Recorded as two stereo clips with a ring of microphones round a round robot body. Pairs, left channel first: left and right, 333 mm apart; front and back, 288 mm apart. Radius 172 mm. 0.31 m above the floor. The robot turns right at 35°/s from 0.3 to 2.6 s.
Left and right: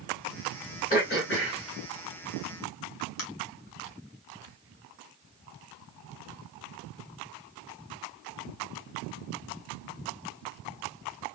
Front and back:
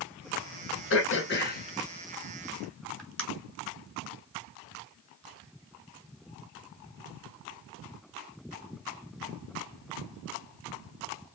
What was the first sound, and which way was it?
Throat clearing, 25° left.